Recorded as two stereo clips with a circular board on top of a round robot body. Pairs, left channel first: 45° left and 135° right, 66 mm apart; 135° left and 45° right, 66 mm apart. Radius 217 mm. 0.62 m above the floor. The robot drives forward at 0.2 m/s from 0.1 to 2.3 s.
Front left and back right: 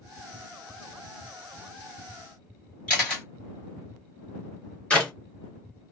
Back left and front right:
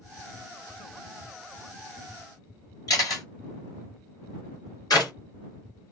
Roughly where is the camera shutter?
Behind left.